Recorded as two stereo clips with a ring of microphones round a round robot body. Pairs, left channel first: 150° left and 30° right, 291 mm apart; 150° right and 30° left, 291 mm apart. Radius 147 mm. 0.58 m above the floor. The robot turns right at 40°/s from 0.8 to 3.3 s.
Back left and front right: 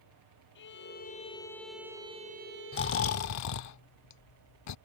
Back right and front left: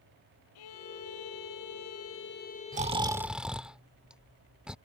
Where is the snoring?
95° left; by 4.8 s 115° left.